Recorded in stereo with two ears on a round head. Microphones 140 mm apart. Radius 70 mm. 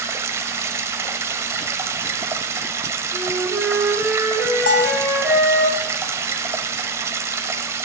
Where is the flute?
5° right (ahead or behind), 5 m.